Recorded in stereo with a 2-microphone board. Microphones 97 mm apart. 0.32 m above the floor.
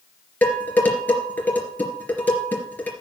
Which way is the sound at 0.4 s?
20° left (ahead or behind).